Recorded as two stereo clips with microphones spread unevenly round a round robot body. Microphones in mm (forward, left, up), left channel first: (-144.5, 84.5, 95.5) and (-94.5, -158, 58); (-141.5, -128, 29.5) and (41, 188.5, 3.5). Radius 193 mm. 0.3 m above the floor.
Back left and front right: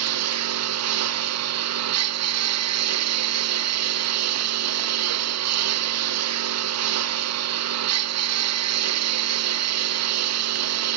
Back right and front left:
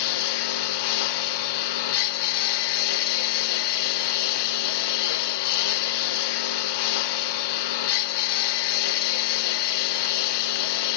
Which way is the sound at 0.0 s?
90° right.